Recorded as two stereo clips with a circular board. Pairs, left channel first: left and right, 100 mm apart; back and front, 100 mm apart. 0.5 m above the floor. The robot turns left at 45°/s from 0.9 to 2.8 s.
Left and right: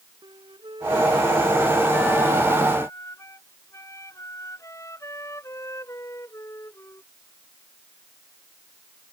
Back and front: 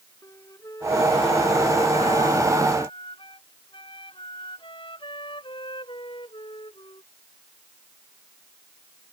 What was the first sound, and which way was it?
A flute, 125° right.